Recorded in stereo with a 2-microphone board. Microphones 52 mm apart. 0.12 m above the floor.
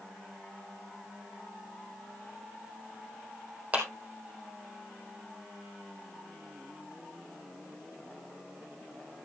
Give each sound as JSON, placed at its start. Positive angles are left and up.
{"t": 3.7, "sound": "a clap", "side_deg": -30, "distance_m": 3.0}